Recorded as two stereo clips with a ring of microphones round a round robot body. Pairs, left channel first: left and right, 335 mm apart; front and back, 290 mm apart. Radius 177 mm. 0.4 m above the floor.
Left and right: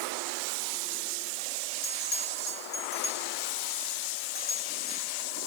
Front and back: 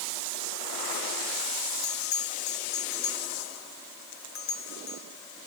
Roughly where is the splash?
I don't hear a splash.